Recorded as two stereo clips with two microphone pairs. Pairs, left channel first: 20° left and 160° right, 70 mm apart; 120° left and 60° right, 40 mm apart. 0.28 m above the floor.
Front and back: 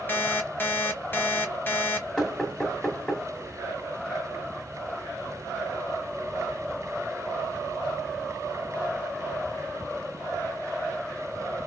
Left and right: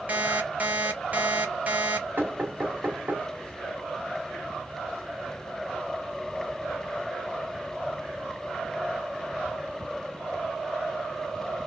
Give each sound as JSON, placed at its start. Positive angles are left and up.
{"t": 0.1, "sound": "an alarm clock", "azimuth_deg": -30, "distance_m": 0.8}
{"t": 2.2, "sound": "knocking", "azimuth_deg": -60, "distance_m": 1.1}